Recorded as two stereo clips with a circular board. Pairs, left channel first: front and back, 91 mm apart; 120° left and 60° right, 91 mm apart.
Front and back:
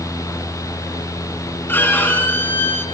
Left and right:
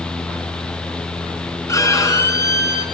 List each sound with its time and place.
1.7 s a violin: 65° left, 3 m